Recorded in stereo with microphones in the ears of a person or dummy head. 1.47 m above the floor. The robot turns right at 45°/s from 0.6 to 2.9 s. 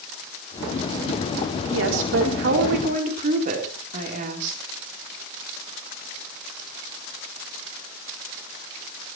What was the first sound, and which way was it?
A woman speaking, 105° right.